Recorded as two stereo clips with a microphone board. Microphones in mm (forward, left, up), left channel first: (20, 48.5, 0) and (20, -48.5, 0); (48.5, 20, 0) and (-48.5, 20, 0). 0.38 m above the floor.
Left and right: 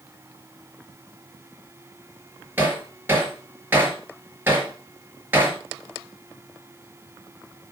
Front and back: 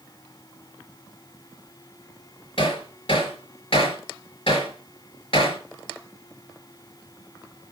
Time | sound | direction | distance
2.6 | hammering | 20° right | 4 m